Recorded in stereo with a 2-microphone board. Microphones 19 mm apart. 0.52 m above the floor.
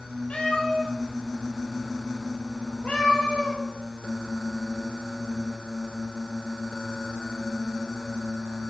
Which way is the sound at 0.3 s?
80° left.